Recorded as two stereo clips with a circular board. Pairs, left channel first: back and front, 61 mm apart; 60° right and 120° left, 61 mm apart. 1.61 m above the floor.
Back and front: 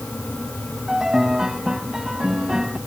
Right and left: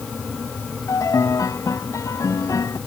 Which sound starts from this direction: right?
A piano, at 0.9 s.